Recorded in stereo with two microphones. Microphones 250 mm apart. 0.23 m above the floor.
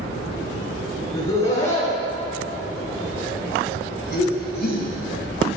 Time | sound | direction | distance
1.1 | laughter | 25° left (ahead or behind) | 1.9 m